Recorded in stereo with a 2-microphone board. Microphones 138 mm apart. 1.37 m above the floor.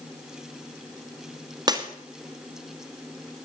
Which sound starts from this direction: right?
Breaking glass, at 1.7 s.